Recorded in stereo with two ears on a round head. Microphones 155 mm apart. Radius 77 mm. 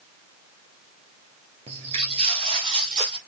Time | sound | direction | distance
1.7 | footsteps | 40° right (ahead or behind) | 1.5 m